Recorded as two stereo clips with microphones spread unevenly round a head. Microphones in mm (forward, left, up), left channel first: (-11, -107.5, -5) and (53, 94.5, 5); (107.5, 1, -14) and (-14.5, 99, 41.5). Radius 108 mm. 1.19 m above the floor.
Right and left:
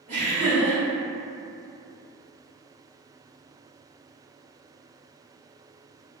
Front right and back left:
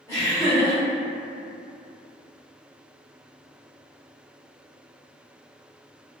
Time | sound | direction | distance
0.1 | laughter | 20° left | 1.3 m